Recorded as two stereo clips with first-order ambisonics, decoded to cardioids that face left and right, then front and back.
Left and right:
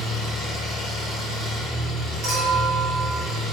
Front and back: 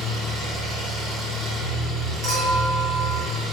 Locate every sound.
0.0 s an engine running: 120° right, 1.2 m
2.2 s a clink: 125° right, 0.9 m